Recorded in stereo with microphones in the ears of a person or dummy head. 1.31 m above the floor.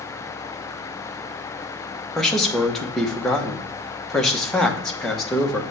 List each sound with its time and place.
2.1 s a man speaking: centre (ahead or behind), 0.8 m